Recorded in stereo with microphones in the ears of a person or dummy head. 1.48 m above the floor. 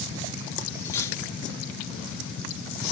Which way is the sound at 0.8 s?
15° left (ahead or behind).